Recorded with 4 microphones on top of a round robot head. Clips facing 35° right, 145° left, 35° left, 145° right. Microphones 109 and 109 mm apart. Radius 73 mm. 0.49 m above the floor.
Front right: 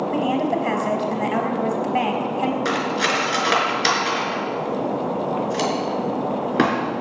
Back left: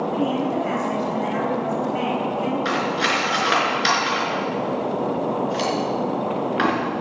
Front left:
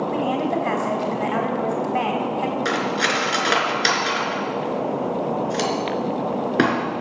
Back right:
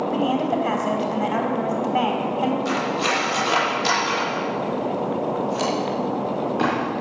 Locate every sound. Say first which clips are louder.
0.1 s a woman speaking: front right 2 dB, back right 2 dB; 65° right, 5 m
2.6 s cutlery clinking: even, even; 15° left, 4 m